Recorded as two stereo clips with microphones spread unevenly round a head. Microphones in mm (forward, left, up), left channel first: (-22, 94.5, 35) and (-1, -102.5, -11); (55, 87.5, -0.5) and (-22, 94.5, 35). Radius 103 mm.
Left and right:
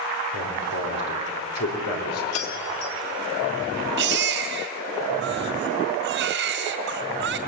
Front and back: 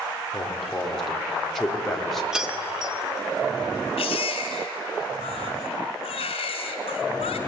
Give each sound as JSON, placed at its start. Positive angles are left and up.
{"t": 0.3, "sound": "a man speaking", "azimuth_deg": 80, "distance_m": 4.5}
{"t": 2.3, "sound": "keys jangling", "azimuth_deg": 95, "distance_m": 2.0}
{"t": 4.0, "sound": "a baby crying", "azimuth_deg": -40, "distance_m": 1.8}